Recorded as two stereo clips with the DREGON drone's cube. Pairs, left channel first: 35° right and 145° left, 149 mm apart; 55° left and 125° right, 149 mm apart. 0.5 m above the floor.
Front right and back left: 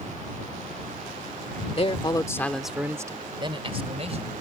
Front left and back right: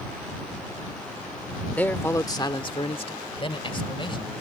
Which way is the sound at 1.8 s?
20° right.